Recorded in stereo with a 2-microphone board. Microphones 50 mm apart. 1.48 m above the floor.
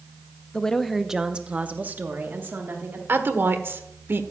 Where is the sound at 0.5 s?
20° left (ahead or behind), 0.7 m; by 3.0 s 50° right (ahead or behind), 1.7 m.